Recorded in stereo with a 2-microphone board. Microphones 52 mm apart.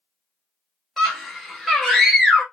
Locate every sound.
1.0 s a scream: centre (ahead or behind), 1.9 m